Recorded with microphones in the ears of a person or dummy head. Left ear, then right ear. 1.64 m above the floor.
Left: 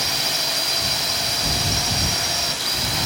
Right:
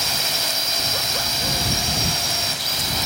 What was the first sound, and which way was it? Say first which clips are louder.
A drone: even; 5° right (ahead or behind).